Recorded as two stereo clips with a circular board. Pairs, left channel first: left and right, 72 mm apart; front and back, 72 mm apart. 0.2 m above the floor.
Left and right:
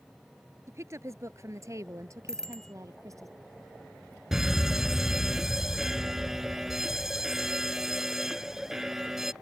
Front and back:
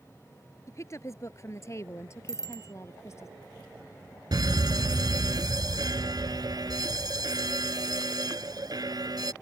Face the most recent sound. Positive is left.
turn(degrees=-175)